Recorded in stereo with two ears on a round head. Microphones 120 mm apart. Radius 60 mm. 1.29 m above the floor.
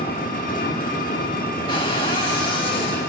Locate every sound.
0.0 s an engine running: 70° left (ahead or behind), 1.9 m
1.7 s a cupboard door: 40° left (ahead or behind), 2.5 m